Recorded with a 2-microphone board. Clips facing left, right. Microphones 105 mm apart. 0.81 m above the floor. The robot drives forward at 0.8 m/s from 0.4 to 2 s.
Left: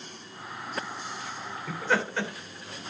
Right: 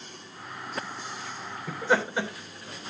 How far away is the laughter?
About 3.5 m.